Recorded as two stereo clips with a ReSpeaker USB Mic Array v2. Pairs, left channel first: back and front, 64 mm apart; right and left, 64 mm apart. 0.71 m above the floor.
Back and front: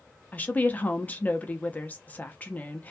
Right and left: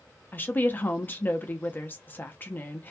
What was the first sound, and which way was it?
A woman speaking, 130° right.